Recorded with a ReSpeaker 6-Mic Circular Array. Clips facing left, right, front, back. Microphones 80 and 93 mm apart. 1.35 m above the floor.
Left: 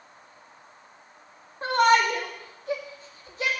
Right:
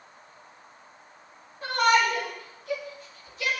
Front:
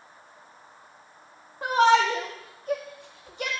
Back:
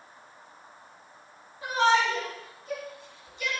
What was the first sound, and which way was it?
A shout, 40° left.